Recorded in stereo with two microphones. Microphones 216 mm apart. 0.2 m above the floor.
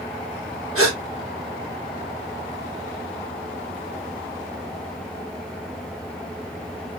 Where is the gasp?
80° left, 3.5 m.